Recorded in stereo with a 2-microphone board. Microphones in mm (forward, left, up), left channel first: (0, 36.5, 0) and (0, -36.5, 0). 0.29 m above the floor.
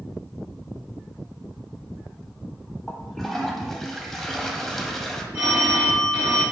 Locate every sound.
2.9 s a toilet flushing: 5° left (ahead or behind), 0.5 m
5.3 s a phone ringing: 30° right (ahead or behind), 1.9 m